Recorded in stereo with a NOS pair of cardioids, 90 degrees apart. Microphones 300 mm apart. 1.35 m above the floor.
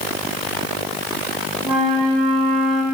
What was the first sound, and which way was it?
A flute, straight ahead.